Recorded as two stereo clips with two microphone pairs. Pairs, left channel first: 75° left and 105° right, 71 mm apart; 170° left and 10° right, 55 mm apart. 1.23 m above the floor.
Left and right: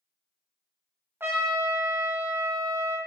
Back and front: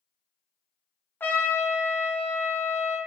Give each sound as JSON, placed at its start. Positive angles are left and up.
{"t": 1.2, "sound": "a trumpet", "azimuth_deg": -150, "distance_m": 0.6}